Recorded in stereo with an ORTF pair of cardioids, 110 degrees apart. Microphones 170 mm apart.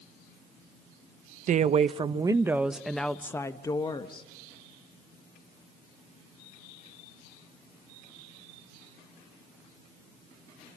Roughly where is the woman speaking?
Ahead right.